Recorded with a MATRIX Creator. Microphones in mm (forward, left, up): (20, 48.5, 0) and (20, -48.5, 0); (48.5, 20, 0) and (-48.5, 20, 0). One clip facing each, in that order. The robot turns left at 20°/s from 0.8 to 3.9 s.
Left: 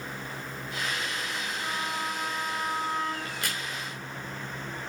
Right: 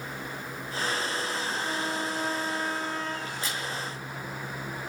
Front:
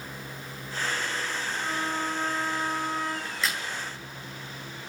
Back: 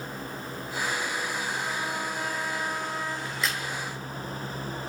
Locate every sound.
1.6 s a trumpet: 70° left, 8.5 m; by 3.1 s 40° left, 8.5 m
3.2 s a crack: 95° left, 6 m; by 3.6 s 85° left, 6 m